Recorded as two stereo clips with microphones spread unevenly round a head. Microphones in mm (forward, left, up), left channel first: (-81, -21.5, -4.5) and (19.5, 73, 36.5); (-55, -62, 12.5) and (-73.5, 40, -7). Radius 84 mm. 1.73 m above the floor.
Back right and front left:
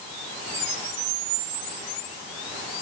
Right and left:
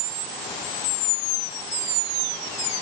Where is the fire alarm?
No fire alarm in this recording.